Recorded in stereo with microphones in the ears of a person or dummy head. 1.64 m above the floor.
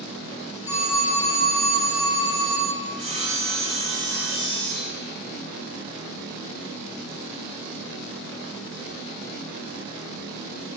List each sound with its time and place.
0.7 s a phone ringing: 20° left (ahead or behind), 1.8 m
2.9 s sawing: 30° right (ahead or behind), 1.2 m